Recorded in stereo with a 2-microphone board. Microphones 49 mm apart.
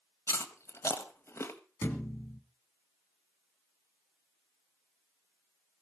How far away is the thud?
About 2.5 m.